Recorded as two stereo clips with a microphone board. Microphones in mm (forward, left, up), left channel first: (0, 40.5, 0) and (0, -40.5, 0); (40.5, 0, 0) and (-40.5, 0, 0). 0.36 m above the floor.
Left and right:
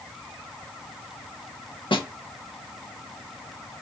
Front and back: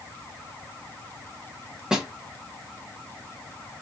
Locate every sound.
1.9 s a snare drum: 95° left, 0.5 m